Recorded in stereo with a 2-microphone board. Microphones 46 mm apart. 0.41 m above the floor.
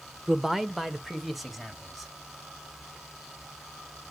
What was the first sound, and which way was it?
A man speaking, 10° right (ahead or behind).